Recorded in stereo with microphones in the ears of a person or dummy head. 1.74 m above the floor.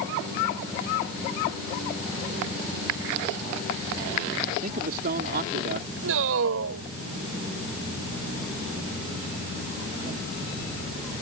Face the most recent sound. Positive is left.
turn(degrees=-75)  # may be behind; listen again after turning